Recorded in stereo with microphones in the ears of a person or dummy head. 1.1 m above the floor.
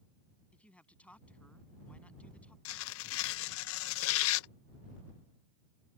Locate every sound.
0.5 s a man speaking: 5° left (ahead or behind)
2.6 s tearing paper: 70° left (ahead or behind)